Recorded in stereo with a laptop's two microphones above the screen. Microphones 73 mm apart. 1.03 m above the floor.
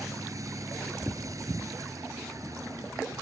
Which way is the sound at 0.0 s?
50° right (ahead or behind).